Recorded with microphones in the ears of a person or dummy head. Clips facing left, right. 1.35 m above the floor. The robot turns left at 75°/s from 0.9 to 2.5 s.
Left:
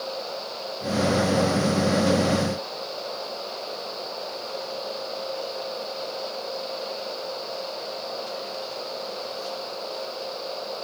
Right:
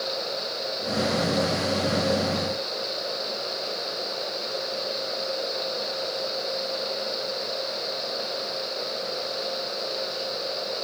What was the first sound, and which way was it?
Only background noise.